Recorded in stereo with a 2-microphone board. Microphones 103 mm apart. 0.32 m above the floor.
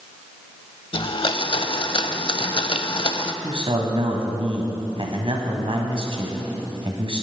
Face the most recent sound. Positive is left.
turn(degrees=-60)  # may be behind; listen again after turning